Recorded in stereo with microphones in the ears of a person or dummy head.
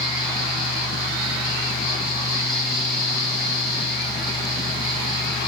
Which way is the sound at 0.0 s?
30° left (ahead or behind).